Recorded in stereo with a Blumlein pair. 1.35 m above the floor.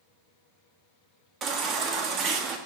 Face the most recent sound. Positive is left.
turn(degrees=-30)